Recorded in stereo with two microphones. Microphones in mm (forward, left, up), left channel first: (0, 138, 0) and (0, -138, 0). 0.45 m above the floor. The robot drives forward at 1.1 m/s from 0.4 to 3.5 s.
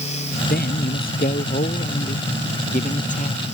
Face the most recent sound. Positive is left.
turn(degrees=25)  # may be behind; listen again after turning